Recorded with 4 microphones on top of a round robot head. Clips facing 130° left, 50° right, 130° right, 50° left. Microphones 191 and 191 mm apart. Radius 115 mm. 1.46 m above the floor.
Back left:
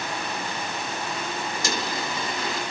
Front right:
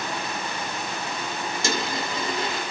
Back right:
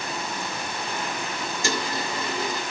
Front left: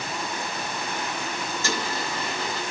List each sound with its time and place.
1.6 s a dropped coin: 70° right, 1.1 m